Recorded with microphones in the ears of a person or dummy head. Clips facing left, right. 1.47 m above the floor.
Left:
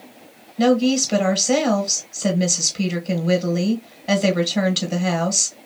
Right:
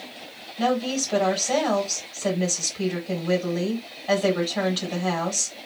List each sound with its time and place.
0.6 s a woman speaking: 35° left (ahead or behind), 1.8 m